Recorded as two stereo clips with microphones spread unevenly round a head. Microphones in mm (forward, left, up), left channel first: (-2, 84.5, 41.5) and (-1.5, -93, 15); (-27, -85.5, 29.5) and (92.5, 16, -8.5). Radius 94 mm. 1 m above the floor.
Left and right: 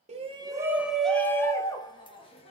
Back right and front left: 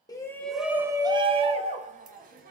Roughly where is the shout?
Ahead right.